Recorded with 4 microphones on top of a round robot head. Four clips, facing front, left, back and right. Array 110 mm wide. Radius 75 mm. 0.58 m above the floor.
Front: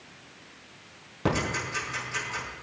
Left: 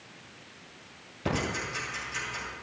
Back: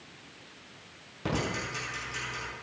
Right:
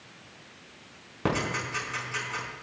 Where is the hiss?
I don't hear a hiss.